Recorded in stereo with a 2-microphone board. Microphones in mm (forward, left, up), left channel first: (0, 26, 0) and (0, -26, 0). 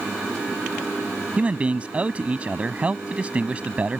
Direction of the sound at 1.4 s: 25° right (ahead or behind).